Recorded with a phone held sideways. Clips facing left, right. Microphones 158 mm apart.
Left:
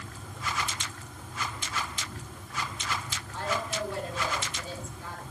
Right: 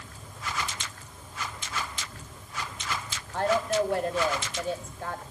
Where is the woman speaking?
55° right (ahead or behind), 4 m.